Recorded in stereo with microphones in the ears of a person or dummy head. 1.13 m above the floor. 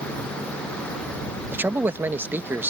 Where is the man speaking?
10° right (ahead or behind).